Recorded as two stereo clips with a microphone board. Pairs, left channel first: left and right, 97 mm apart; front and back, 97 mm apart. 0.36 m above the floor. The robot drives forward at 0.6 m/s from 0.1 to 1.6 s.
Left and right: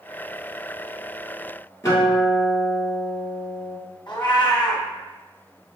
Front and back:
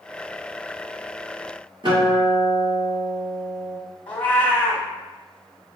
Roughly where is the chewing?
No chewing in this recording.